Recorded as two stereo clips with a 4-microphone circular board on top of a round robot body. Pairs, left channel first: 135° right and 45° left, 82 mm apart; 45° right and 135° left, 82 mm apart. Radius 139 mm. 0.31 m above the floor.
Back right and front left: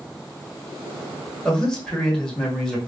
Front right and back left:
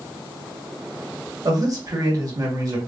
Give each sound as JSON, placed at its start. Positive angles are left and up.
{"t": 1.4, "sound": "a man speaking", "azimuth_deg": 145, "distance_m": 1.4}